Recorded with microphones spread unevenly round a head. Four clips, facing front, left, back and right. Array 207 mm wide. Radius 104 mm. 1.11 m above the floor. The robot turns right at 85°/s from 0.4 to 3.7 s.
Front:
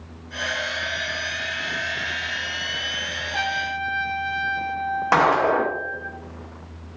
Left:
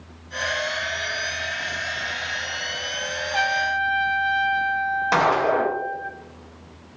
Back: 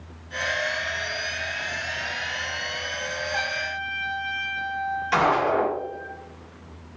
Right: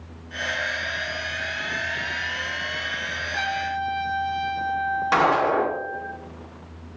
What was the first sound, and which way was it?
A trumpet, 80° left.